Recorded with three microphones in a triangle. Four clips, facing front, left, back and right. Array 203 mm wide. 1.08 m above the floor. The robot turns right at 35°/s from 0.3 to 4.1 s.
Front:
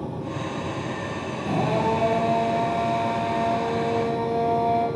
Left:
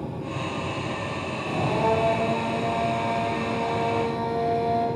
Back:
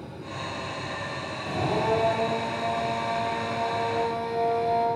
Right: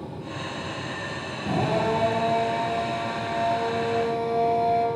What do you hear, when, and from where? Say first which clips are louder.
1.4 s a drill: even, front 3 dB; 55° right, 9.5 m; by 4.9 s 35° left, 9.5 m